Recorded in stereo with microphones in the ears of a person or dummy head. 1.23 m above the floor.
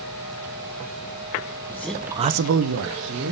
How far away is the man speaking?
About 1.0 m.